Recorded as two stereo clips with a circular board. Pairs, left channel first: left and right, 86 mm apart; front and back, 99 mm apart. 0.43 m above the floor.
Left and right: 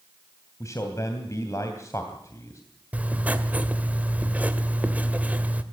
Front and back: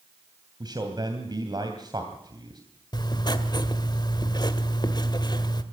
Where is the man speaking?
140° left, 3 m.